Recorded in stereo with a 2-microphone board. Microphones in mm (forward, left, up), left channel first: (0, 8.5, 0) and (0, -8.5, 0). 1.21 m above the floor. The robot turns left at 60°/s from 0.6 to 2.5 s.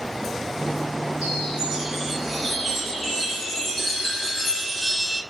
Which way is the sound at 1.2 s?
120° right.